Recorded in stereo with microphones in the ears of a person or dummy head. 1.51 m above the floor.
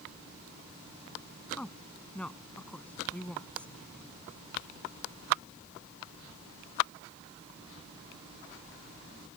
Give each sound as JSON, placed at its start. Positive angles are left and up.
{"t": 1.6, "sound": "a woman speaking", "side_deg": 5}